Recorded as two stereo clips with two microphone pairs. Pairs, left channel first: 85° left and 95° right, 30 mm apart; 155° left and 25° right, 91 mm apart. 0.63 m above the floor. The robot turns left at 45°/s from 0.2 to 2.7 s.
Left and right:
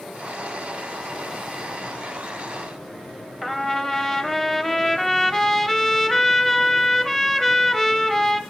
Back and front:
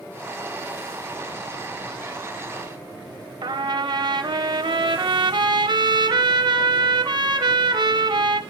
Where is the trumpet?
5° left, 0.7 m.